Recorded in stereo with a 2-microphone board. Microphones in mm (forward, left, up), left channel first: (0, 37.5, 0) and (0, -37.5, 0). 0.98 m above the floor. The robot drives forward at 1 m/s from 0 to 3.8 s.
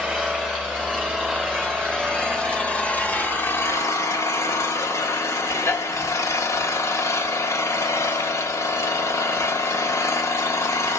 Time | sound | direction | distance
0.0 | an engine running | 5° left (ahead or behind) | 4 m